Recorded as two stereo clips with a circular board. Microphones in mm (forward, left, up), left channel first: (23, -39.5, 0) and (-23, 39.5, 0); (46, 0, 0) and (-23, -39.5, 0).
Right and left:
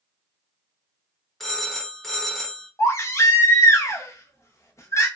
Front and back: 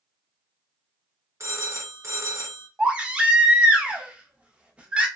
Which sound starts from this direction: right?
A baby crying, at 2.8 s.